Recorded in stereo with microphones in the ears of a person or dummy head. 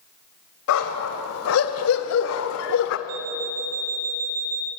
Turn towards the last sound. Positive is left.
turn(degrees=-80)